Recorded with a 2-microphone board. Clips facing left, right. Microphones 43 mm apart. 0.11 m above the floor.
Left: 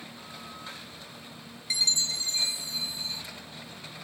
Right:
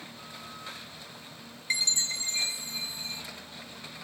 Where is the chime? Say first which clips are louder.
Left 1 dB; 35° right (ahead or behind), 0.8 m.